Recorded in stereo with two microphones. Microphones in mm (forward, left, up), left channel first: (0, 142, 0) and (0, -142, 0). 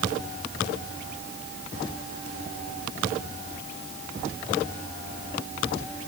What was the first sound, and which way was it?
Only background noise.